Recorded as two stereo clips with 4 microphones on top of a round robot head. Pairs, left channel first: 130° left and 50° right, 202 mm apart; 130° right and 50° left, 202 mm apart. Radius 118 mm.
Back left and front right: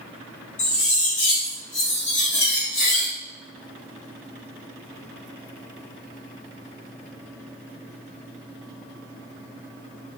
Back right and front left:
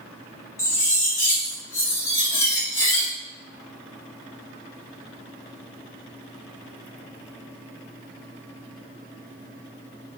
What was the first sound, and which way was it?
Cutlery clinking, 155° left.